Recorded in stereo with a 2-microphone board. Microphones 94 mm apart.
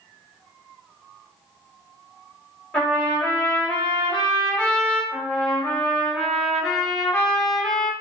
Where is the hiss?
I don't hear a hiss.